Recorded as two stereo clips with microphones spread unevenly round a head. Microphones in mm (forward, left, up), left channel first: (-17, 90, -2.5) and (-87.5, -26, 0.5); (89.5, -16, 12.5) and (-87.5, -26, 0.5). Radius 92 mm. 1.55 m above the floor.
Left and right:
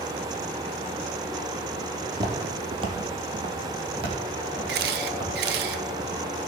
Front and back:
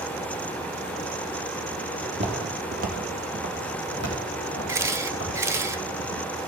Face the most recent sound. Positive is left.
turn(degrees=-100)